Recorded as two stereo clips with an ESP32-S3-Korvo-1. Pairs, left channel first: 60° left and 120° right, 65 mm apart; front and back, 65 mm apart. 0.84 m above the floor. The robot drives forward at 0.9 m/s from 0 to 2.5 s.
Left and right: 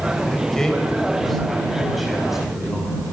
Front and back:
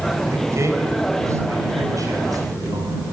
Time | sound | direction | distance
0.3 | a man speaking | 135° left | 3.5 m